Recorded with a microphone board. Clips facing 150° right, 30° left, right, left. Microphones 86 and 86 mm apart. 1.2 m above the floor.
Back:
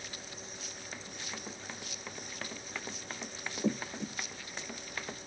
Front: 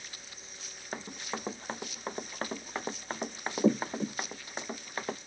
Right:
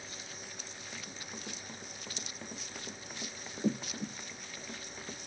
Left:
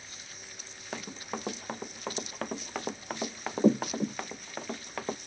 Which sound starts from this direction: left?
Running footsteps, at 0.9 s.